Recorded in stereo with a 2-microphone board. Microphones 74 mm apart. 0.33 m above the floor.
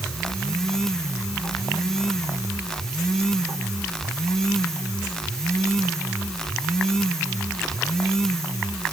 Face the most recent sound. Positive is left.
No sound to turn to.